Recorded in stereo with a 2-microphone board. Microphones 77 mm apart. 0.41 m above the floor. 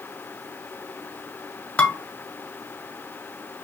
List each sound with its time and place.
1.8 s dishes clattering: 15° left (ahead or behind), 1.4 m